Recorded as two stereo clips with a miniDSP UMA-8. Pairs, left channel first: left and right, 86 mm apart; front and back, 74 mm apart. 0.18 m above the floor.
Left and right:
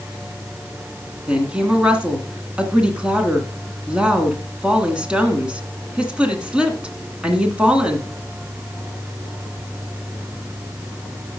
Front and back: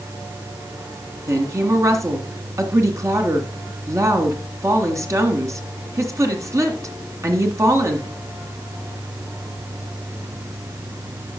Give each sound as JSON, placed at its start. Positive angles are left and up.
{"t": 1.3, "sound": "a woman speaking", "azimuth_deg": -165, "distance_m": 1.8}